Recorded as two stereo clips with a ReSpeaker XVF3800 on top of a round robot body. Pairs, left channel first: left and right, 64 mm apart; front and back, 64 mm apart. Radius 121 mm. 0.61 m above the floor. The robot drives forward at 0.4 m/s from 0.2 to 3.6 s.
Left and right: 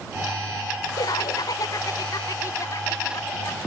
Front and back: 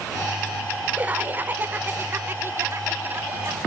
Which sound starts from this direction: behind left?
Laughter, at 1.0 s.